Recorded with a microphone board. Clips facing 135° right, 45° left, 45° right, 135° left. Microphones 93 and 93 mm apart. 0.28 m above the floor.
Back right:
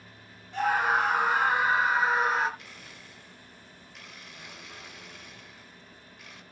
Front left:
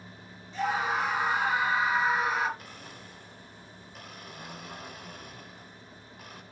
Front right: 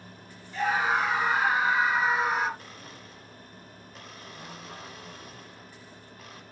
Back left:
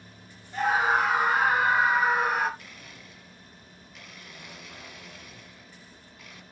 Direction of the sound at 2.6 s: 5° left.